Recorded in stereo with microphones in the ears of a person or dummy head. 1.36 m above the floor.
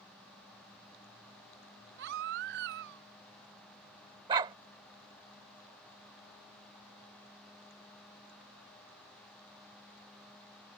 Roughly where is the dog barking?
Right.